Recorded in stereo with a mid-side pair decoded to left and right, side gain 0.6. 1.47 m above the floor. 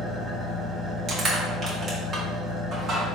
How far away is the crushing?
About 1.8 m.